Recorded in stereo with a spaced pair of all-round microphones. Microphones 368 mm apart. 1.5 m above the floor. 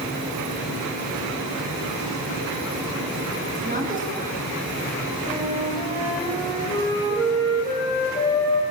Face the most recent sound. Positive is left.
turn(degrees=10)  # may be behind; listen again after turning